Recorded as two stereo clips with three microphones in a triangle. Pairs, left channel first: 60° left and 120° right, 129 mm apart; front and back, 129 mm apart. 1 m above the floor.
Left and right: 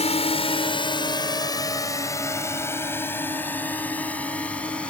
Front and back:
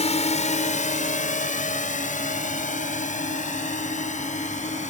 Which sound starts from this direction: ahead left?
A drone, at 0.0 s.